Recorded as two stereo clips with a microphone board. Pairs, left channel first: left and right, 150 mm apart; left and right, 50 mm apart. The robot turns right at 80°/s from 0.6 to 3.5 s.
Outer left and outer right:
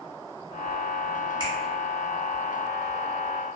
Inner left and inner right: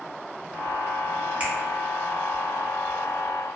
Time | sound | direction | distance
1.4 | a finger snap | 30° right (ahead or behind) | 0.7 m